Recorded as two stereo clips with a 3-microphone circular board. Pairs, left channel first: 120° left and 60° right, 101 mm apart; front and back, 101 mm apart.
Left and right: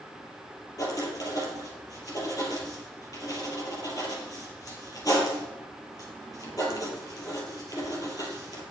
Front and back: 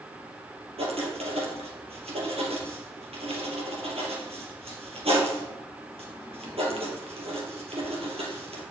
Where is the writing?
175° left, 3 m.